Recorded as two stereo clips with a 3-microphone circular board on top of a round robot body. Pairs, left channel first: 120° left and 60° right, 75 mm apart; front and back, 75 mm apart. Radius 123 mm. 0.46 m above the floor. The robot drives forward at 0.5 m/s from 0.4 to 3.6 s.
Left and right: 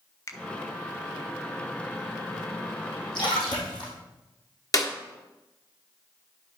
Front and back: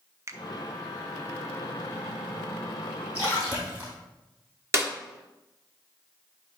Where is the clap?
140° left, 1.4 m.